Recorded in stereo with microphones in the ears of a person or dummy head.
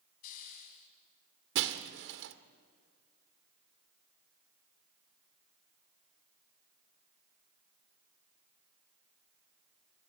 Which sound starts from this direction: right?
Breaking glass, at 1.6 s.